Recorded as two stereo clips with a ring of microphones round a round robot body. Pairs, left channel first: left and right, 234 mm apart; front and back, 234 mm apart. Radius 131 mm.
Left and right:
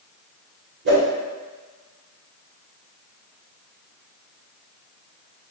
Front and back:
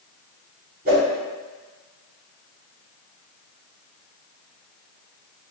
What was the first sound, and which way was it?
A whoosh, 130° right.